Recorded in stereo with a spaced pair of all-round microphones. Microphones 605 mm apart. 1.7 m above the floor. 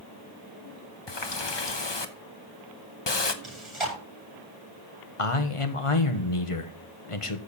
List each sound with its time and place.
1.1 s a running tap: 45° left (ahead or behind), 1.1 m
3.4 s chewing: 50° right (ahead or behind), 9 m
5.2 s a man speaking: 55° left (ahead or behind), 1.5 m